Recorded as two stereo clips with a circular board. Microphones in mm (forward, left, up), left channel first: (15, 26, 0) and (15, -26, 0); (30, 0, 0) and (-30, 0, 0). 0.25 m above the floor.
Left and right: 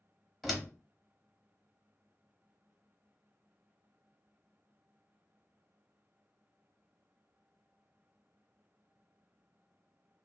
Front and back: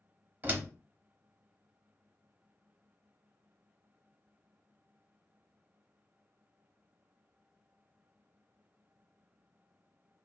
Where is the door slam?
175° right, 0.7 m.